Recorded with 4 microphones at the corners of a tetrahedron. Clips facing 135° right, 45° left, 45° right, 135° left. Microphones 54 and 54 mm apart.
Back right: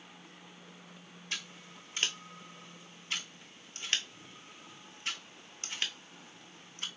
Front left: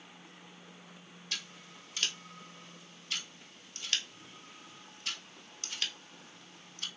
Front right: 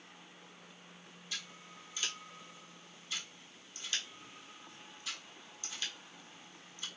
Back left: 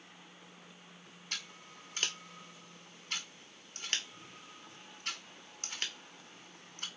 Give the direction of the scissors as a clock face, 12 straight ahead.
7 o'clock.